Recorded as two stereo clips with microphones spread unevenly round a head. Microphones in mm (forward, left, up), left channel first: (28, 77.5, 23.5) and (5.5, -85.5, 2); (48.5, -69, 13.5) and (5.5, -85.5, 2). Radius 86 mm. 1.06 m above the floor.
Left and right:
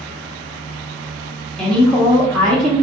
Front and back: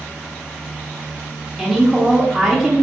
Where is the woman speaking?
Straight behind, 0.6 m.